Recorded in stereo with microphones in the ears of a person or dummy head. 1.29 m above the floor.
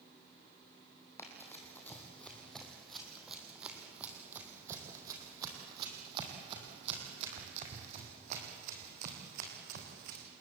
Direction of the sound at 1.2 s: 15° left (ahead or behind).